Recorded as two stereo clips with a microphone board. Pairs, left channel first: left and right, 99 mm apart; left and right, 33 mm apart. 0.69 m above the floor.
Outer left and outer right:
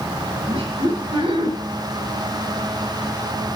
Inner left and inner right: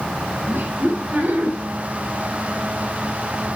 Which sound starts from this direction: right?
Laughter, at 0.5 s.